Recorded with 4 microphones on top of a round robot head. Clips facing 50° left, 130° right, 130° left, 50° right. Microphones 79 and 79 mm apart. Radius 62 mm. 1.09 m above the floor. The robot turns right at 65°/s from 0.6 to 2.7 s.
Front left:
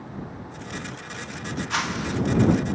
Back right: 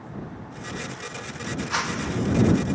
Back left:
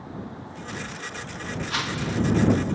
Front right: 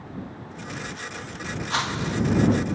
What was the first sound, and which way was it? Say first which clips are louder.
A whoosh: front left 1 dB, front right 2 dB; 50° right.